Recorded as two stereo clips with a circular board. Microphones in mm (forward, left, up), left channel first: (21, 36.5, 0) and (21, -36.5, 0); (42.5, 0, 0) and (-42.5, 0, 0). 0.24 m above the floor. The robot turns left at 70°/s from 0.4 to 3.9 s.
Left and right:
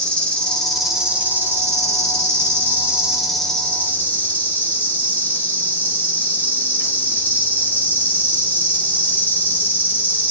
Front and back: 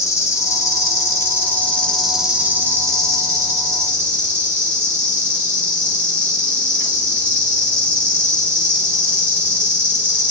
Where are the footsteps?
I don't hear footsteps.